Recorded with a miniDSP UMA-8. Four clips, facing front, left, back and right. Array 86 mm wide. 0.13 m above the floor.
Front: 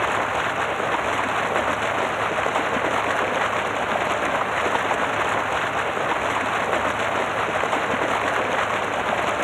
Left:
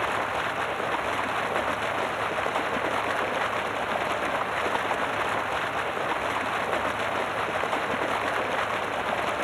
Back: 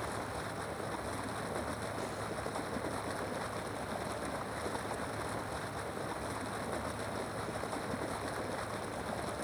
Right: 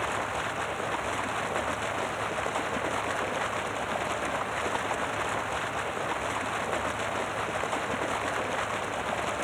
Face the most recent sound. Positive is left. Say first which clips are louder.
# left 4 dB, front 17 dB
turn(degrees=10)